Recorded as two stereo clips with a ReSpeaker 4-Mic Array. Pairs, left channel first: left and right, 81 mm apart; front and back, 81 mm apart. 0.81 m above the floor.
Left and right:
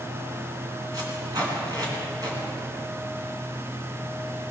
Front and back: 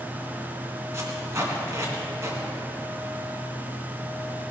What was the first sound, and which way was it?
Tape being pulled, 125° right.